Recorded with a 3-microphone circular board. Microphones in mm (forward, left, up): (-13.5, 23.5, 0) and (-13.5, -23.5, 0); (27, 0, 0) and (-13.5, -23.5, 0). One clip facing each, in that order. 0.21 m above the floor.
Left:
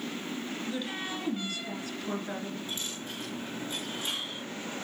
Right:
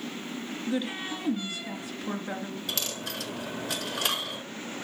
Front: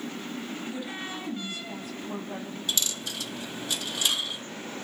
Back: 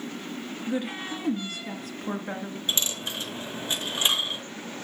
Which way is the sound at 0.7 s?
160° right.